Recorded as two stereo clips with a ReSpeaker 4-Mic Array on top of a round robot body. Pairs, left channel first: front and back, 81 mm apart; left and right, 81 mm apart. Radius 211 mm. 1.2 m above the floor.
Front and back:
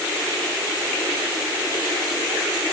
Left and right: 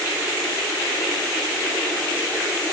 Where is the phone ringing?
No phone ringing in this recording.